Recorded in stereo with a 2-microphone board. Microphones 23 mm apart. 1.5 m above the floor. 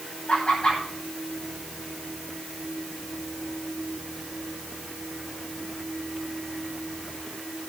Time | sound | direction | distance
0.3 | laughter | 40° left (ahead or behind) | 9.5 m